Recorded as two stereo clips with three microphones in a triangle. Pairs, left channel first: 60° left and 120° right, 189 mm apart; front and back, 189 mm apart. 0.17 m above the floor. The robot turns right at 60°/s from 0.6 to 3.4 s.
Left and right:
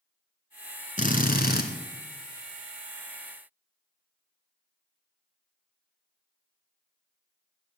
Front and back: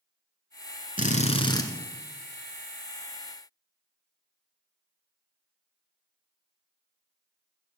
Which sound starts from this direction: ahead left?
A drill, at 1.0 s.